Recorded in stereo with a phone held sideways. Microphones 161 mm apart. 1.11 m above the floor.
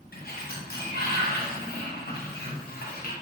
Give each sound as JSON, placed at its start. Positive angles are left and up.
{"t": 0.1, "sound": "a sliding door", "side_deg": 75, "distance_m": 0.8}